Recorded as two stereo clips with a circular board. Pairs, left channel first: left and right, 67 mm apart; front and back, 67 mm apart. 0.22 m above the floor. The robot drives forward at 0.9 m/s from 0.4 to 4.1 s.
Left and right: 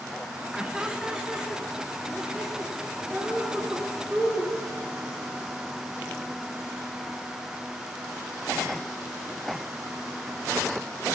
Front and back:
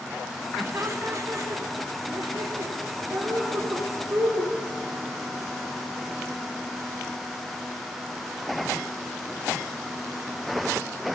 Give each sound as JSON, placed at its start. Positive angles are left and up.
{"t": 0.6, "sound": "laughter", "azimuth_deg": -165, "distance_m": 1.3}